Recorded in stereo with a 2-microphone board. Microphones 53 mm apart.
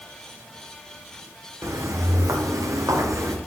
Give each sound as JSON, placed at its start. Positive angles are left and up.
{"t": 1.6, "sound": "footsteps", "side_deg": -75, "distance_m": 2.5}